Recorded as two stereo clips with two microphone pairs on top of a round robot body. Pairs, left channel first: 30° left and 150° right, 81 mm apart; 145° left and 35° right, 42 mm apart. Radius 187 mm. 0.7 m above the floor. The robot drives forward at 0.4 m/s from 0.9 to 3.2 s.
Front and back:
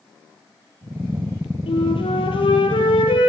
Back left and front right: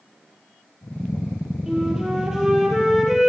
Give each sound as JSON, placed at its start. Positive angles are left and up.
{"t": 1.7, "sound": "a flute", "azimuth_deg": 45, "distance_m": 5.0}